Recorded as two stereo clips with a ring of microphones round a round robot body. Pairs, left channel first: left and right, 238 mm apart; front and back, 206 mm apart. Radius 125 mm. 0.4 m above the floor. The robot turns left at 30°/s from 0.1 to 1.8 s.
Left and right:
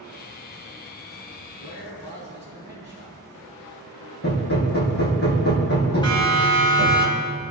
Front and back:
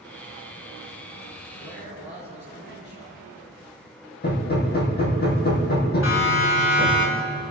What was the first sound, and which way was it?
A man speaking, 45° left.